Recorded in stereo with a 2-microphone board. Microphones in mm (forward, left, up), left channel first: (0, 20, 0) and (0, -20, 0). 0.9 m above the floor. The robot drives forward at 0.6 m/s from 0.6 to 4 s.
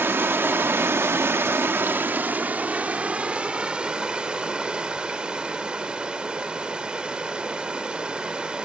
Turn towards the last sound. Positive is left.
turn(degrees=-25)  # may be behind; listen again after turning